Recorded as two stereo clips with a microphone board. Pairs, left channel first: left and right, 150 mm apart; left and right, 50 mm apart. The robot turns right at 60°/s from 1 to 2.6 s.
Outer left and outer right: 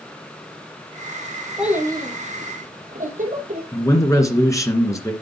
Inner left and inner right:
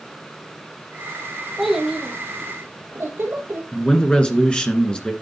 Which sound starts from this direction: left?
A man speaking, at 3.7 s.